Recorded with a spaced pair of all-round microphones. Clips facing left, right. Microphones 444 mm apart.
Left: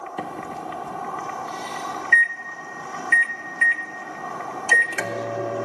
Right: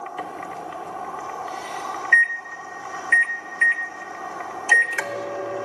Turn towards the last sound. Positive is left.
turn(degrees=55)  # may be behind; listen again after turning